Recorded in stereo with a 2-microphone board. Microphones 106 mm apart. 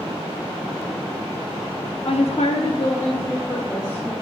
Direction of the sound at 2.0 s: 55° left (ahead or behind).